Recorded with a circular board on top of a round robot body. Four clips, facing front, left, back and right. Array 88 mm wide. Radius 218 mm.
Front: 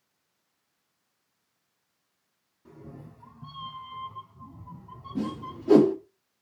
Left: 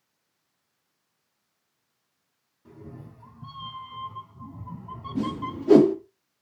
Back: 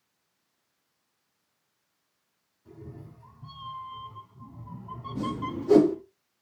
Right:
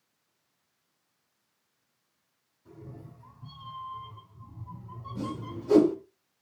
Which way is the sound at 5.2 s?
65° left.